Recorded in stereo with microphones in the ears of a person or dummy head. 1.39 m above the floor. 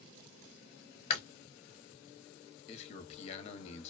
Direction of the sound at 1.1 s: 35° left (ahead or behind).